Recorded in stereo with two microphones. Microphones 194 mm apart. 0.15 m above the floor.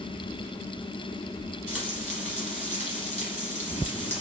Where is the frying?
10° right (ahead or behind), 1.6 m.